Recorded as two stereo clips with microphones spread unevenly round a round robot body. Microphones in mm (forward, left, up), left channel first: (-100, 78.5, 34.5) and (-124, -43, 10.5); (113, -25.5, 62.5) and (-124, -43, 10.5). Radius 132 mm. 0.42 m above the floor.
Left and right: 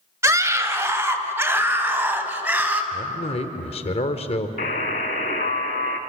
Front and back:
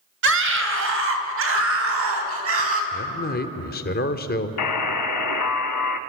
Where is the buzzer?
30° left, 0.8 m.